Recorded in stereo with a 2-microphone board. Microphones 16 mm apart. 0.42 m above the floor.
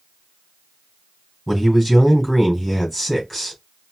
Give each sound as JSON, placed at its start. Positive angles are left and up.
{"t": 1.5, "sound": "a man speaking", "side_deg": -5, "distance_m": 3.0}